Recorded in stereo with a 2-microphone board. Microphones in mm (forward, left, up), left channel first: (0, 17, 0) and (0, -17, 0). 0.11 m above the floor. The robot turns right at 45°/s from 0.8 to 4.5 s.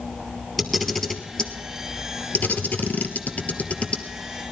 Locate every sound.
0.6 s a camera shutter: centre (ahead or behind), 1.4 m; by 4.0 s 25° left (ahead or behind), 1.4 m